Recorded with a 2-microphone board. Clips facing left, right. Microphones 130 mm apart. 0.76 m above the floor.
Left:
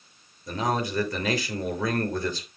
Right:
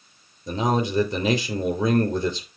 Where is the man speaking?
20° right (ahead or behind), 3 m.